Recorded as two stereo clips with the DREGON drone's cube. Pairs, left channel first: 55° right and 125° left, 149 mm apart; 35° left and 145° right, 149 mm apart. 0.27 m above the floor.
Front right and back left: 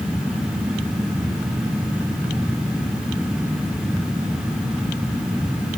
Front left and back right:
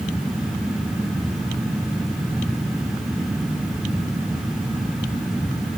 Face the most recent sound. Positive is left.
No sound to turn to.